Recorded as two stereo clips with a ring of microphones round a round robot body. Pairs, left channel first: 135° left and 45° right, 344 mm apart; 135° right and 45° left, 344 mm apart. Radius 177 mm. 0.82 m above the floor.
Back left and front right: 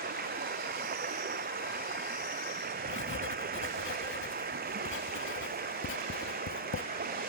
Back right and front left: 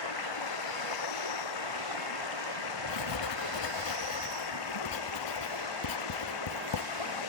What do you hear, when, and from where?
0.0 s running water: 110° right
2.9 s writing: 165° right